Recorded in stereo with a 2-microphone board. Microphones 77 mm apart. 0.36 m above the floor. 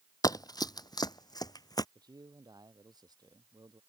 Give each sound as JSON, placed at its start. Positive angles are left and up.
{"t": 0.2, "sound": "running footsteps", "side_deg": 55}
{"t": 1.9, "sound": "a man speaking", "side_deg": -65}